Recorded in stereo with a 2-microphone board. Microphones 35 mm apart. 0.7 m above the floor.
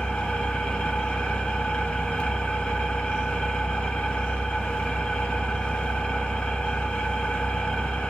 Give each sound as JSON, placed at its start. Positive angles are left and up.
{"t": 0.0, "sound": "an engine running", "side_deg": 40, "distance_m": 0.9}